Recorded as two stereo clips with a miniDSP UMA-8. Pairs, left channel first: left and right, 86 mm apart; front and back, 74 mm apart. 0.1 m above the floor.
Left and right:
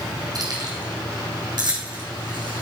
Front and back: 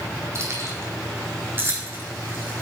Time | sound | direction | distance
0.3 | keys jangling | 130° right | 3.5 m